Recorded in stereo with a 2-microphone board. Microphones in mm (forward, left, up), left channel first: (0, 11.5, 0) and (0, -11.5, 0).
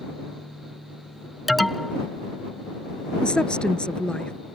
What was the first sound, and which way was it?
An alarm, centre (ahead or behind).